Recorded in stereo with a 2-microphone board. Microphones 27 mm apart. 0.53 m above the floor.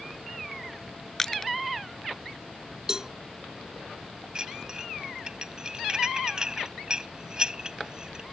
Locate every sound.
1.2 s crushing: 20° left (ahead or behind)
2.9 s a cowbell: 25° right (ahead or behind)
4.3 s dishes clattering: 30° right (ahead or behind)